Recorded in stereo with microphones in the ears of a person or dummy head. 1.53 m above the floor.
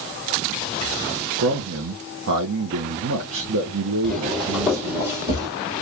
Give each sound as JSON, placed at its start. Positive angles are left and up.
{"t": 1.4, "sound": "a man speaking", "side_deg": -80, "distance_m": 1.0}
{"t": 4.0, "sound": "footsteps", "side_deg": 0, "distance_m": 2.5}